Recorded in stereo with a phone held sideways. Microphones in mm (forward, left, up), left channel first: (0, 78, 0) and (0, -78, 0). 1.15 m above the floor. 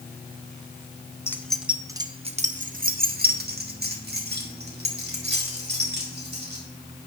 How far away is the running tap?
I don't hear a running tap.